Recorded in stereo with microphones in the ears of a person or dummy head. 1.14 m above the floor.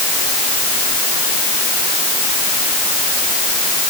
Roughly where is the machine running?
I don't hear a machine running.